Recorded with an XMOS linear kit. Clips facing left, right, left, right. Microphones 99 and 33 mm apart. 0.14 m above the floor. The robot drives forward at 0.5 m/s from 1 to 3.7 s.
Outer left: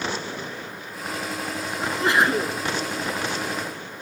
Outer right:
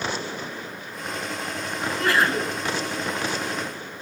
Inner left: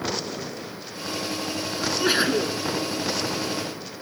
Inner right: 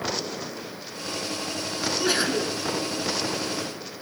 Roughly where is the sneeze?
Left.